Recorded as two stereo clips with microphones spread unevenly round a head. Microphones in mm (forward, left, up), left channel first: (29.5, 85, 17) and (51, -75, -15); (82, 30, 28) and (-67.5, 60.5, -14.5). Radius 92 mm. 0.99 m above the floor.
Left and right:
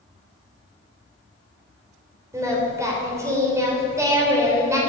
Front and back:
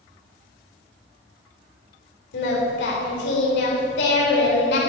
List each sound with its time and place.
2.3 s singing: 10° right, 3.5 m